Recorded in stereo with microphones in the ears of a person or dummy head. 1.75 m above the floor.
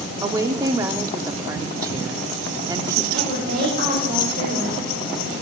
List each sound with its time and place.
0.2 s a woman speaking: 15° right (ahead or behind), 0.8 m
3.1 s a woman speaking: 60° right (ahead or behind), 3 m